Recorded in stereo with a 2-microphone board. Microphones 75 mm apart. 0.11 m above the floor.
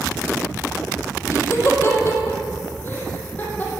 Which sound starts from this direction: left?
Laughter, at 1.3 s.